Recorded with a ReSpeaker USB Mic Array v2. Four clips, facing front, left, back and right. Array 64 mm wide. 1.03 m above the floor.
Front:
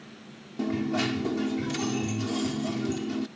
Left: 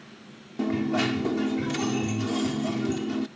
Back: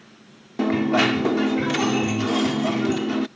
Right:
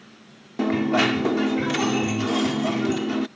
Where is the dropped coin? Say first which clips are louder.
Right 5 dB, back 8 dB; 140° right.